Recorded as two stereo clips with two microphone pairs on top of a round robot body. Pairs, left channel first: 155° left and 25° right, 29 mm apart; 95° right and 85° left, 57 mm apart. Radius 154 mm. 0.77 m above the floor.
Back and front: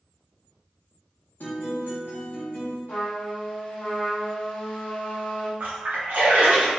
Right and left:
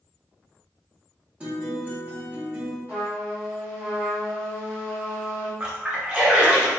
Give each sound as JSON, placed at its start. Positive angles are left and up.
{"t": 1.4, "sound": "a guitar", "azimuth_deg": 155, "distance_m": 0.7}
{"t": 2.9, "sound": "a trumpet", "azimuth_deg": 145, "distance_m": 0.7}
{"t": 5.6, "sound": "a splash", "azimuth_deg": 10, "distance_m": 0.8}